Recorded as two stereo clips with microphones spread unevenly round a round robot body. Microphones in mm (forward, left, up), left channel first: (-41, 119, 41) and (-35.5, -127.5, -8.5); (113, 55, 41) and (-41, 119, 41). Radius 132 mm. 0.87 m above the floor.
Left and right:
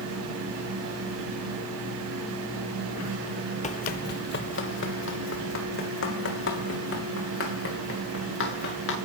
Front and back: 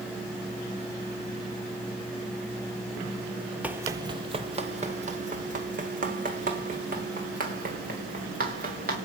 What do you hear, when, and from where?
3.6 s running footsteps: 80° left, 1.0 m; by 8.9 s 125° left, 5.5 m